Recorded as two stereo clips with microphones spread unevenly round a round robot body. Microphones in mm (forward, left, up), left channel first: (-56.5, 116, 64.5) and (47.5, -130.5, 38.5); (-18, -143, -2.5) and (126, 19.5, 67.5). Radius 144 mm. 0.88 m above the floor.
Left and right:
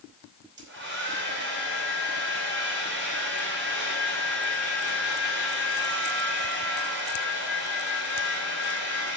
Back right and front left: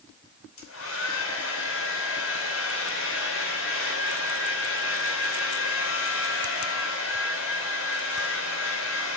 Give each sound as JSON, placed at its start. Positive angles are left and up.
{"t": 0.6, "sound": "a hair dryer", "azimuth_deg": -115, "distance_m": 3.0}